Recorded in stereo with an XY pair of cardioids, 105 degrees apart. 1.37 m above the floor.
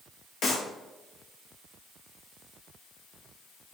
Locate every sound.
0.4 s a clap: 65° left, 1.8 m